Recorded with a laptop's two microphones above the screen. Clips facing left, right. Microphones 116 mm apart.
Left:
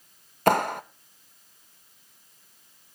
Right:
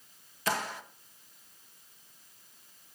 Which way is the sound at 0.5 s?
55° left (ahead or behind).